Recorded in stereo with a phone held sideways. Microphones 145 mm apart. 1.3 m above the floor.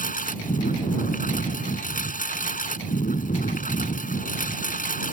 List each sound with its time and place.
0.0 s a lawn mower: 70° left (ahead or behind)